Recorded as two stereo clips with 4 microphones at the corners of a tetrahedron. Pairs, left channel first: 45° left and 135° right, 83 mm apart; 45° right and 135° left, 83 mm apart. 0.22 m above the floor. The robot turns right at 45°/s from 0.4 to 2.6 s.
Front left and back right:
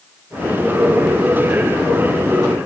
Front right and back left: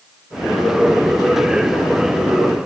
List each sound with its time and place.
Only background noise.